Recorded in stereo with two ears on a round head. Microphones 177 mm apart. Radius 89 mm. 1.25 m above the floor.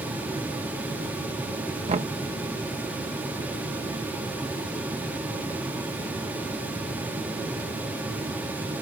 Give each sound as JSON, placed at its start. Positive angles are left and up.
{"t": 1.9, "sound": "knocking", "side_deg": -35}